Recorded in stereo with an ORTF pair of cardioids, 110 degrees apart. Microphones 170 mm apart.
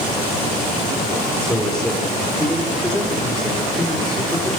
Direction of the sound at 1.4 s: 5° left.